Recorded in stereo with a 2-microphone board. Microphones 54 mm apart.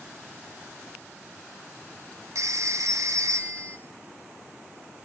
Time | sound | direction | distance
2.4 | a phone ringing | 70° right (ahead or behind) | 0.8 m